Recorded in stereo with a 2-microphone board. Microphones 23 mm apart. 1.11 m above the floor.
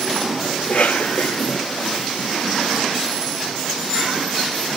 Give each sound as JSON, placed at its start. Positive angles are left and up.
{"t": 0.6, "sound": "a cough", "side_deg": 65, "distance_m": 2.0}